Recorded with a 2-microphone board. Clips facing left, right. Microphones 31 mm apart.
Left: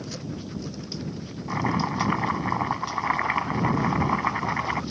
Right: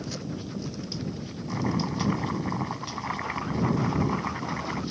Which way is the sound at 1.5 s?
30° left (ahead or behind).